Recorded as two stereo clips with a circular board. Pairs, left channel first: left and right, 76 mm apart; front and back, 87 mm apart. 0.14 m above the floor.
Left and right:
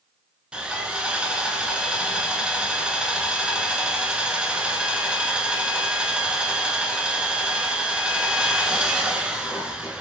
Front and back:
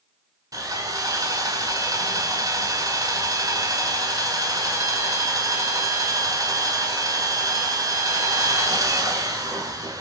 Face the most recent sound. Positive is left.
turn(degrees=-160)